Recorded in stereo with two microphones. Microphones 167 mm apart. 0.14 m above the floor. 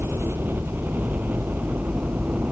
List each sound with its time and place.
0.0 s a helicopter: 10° right (ahead or behind)